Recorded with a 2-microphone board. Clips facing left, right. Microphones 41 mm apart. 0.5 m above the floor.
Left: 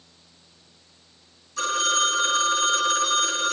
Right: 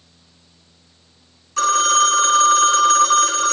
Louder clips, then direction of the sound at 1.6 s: Right 8 dB; 65° right (ahead or behind).